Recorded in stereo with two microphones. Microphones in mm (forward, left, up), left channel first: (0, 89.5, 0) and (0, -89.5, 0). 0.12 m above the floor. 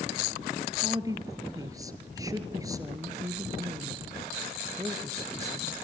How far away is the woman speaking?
About 2 m.